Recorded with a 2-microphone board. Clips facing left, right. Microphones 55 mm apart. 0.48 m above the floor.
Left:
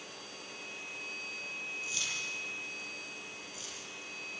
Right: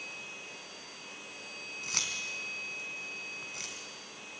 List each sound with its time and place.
1.8 s keys jangling: 70° right (ahead or behind), 3.5 m